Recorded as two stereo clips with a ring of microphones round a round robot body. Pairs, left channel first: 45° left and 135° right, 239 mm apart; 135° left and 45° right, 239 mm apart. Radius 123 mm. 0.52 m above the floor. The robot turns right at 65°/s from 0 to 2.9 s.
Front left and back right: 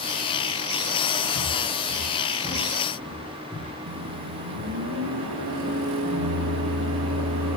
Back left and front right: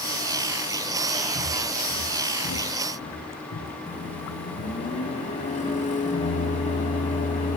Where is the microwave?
165° right, 3.5 m.